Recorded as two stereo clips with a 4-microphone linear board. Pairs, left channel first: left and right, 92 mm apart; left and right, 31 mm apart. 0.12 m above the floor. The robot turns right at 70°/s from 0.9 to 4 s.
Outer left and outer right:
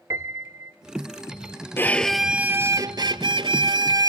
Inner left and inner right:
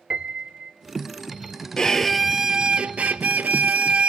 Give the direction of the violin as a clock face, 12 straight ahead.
7 o'clock.